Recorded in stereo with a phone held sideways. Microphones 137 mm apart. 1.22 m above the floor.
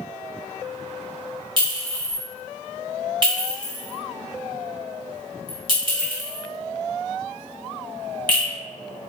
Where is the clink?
35° right (ahead or behind), 1.0 m.